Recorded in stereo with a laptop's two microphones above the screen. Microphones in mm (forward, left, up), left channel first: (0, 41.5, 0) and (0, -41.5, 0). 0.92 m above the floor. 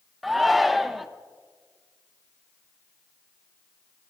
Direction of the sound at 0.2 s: Centre (ahead or behind).